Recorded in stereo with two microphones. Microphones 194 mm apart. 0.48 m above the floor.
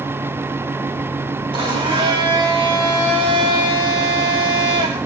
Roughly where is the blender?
Right.